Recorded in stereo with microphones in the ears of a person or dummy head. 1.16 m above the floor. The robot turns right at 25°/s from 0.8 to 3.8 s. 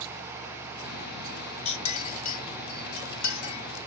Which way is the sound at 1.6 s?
35° left (ahead or behind).